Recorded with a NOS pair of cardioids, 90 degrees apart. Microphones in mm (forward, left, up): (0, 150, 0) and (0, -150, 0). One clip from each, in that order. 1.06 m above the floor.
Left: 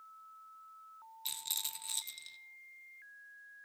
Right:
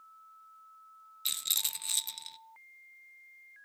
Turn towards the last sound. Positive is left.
turn(degrees=-40)